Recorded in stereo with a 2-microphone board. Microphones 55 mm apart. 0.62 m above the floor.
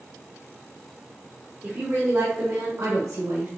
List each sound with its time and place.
1.6 s a woman speaking: 35° right (ahead or behind), 1.4 m; by 3.5 s 60° right (ahead or behind), 2.5 m